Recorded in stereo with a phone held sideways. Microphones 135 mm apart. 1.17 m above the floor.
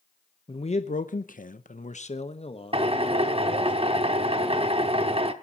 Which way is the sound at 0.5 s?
45° left (ahead or behind).